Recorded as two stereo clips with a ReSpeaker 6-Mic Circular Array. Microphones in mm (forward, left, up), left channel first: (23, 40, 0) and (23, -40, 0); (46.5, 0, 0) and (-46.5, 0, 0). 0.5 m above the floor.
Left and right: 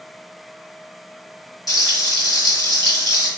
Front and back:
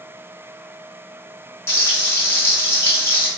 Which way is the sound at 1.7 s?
55° left.